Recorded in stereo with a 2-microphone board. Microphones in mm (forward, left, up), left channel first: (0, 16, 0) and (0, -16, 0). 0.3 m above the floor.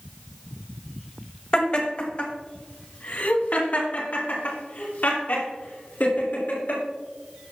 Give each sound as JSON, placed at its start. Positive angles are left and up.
{"t": 1.5, "sound": "laughter", "side_deg": 35, "distance_m": 1.5}